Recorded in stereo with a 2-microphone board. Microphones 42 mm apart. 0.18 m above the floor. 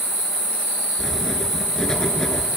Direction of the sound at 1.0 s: 15° left (ahead or behind).